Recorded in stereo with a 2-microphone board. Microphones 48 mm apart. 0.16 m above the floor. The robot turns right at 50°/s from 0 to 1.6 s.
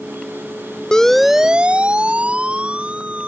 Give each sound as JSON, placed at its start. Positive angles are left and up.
{"t": 0.9, "sound": "a siren", "side_deg": 15}